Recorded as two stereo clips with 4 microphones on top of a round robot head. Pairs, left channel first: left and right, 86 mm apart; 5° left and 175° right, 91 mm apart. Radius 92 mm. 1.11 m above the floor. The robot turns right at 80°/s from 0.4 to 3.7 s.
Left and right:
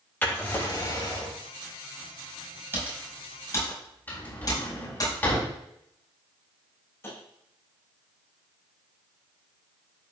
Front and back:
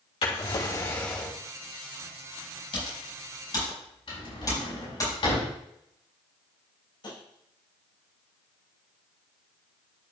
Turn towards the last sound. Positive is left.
turn(degrees=30)